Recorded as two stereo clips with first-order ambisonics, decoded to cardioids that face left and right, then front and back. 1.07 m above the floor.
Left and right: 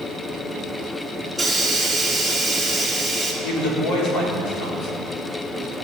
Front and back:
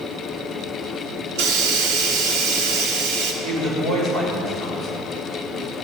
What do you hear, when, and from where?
1.4 s a hiss: 175° left, 1.9 m
3.4 s a woman speaking: 110° left, 3.5 m